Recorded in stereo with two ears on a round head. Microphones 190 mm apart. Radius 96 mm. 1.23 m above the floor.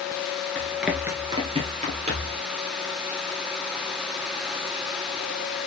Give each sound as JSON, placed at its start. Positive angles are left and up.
{"t": 0.6, "sound": "running footsteps", "side_deg": 5, "distance_m": 1.3}